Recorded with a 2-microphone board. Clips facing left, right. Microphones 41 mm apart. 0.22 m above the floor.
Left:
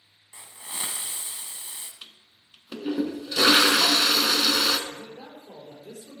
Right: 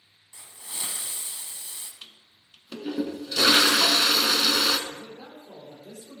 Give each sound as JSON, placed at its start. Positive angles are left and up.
{"t": 0.3, "sound": "a hiss", "side_deg": 30, "distance_m": 0.9}
{"t": 2.0, "sound": "a toilet flushing", "side_deg": 10, "distance_m": 0.6}
{"t": 4.9, "sound": "a man speaking", "side_deg": 75, "distance_m": 4.0}